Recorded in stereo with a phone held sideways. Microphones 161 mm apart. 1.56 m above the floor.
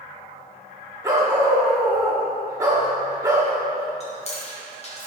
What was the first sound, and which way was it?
A dog barking, 20° right (ahead or behind).